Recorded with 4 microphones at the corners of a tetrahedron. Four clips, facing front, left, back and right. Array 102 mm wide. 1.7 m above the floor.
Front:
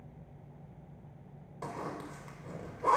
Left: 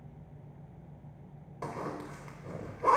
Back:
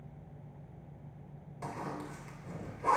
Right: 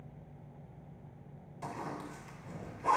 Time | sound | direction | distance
1.6 | a zipper | 60° left | 4 m